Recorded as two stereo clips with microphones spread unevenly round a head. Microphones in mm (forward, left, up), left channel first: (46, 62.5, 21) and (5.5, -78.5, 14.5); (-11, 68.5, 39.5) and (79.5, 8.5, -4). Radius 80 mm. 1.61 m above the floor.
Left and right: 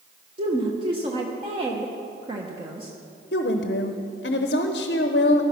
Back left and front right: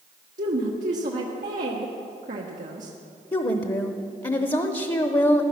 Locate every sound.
0.4 s a woman speaking: 50° right, 1.3 m
3.3 s a woman speaking: 100° left, 0.9 m